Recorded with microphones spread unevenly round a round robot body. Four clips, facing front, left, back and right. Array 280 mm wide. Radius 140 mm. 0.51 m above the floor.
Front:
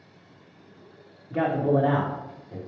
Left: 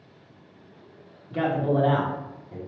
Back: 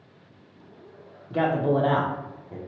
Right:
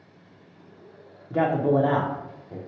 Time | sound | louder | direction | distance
1.3 | a man speaking | right 3 dB, even | 95° right | 0.8 m